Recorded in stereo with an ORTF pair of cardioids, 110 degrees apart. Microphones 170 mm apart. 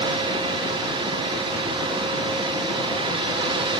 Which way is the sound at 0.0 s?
30° right.